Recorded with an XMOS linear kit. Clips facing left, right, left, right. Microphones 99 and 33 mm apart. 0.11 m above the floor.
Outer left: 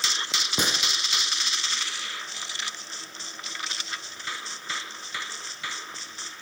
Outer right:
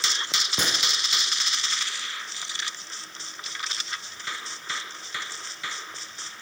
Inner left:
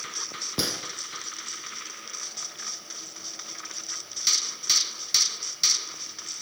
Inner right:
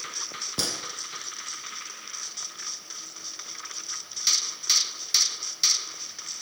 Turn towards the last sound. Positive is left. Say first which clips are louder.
# outer left 2 dB, inner left 1 dB
turn(degrees=15)  # may be behind; listen again after turning